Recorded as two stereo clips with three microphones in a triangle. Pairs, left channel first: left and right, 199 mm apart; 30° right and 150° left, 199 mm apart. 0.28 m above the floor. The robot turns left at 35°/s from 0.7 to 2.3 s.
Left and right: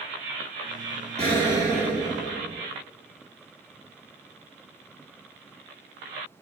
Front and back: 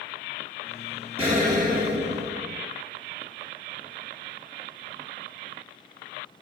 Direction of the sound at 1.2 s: 150° right.